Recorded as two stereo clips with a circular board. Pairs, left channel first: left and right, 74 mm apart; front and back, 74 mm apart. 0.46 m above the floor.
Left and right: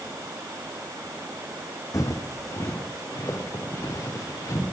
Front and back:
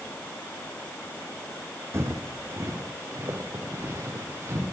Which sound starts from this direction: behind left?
Footsteps, at 1.9 s.